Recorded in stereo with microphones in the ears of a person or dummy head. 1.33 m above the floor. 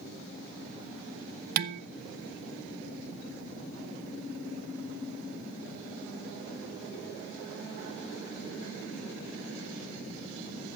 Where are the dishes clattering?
40° right (ahead or behind), 0.6 m.